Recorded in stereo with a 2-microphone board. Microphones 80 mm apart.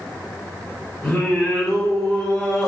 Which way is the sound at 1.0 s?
5° left (ahead or behind).